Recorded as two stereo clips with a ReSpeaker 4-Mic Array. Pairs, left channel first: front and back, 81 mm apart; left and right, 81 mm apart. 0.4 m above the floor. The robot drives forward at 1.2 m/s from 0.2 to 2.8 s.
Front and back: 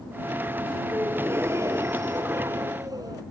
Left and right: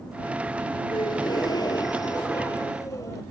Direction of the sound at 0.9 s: 115° left.